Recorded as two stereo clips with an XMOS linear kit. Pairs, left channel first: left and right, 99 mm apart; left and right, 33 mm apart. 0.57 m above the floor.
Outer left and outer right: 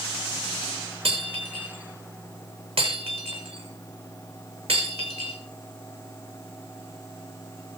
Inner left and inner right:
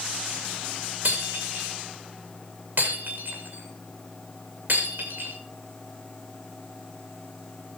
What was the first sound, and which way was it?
Breaking glass, 75° right (ahead or behind).